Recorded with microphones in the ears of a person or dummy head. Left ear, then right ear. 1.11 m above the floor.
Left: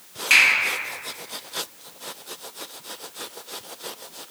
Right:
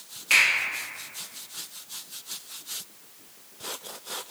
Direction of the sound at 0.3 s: 10° left (ahead or behind).